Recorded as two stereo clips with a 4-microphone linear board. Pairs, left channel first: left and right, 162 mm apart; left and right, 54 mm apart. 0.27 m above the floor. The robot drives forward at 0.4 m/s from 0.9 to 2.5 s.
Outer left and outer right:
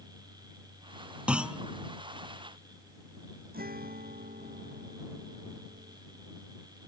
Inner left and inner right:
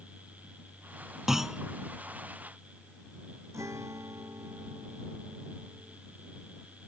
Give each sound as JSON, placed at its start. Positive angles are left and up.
{"t": 1.3, "sound": "a clunk", "side_deg": -5}
{"t": 3.5, "sound": "a guitar", "side_deg": -70}